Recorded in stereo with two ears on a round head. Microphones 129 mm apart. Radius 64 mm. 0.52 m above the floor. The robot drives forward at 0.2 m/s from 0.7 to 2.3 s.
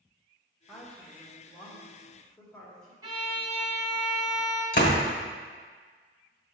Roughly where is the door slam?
Left.